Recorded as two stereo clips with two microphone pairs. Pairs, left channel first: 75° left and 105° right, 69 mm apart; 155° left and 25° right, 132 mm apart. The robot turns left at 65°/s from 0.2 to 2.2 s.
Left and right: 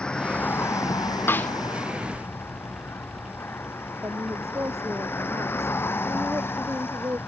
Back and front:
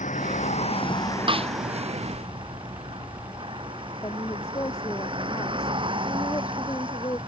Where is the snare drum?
20° left; by 1.5 s 5° left.